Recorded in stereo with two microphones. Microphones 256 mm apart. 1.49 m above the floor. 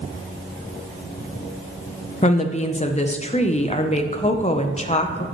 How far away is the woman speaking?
About 0.6 m.